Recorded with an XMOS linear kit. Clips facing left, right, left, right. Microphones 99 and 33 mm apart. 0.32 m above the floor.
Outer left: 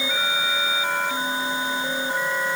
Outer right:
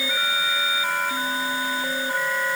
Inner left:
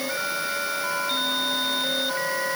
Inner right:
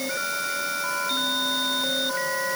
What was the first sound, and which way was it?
Only background noise.